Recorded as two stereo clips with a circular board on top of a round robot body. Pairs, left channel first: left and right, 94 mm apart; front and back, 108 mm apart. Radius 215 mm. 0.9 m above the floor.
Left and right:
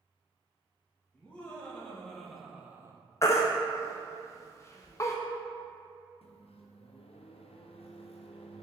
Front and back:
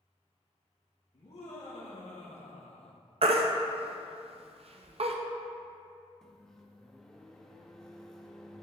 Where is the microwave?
85° left, 0.5 m.